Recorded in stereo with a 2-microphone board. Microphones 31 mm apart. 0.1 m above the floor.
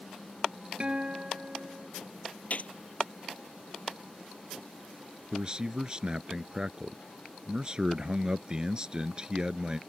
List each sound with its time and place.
0.8 s a guitar: 35° right (ahead or behind)
2.5 s a gunshot: 55° left (ahead or behind)
5.3 s a man speaking: 30° right (ahead or behind)